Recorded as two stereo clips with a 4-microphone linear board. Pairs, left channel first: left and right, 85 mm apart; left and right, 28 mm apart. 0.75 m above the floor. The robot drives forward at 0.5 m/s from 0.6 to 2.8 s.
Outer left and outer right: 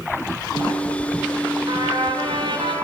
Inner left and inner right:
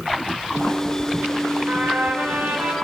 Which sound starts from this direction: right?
A trumpet, at 1.7 s.